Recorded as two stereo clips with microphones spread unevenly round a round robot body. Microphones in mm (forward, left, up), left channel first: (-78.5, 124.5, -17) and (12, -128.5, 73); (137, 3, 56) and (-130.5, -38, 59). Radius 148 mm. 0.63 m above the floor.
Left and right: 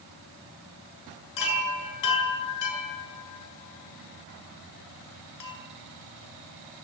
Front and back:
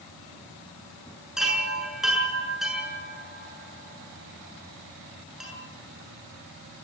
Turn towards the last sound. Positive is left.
turn(degrees=100)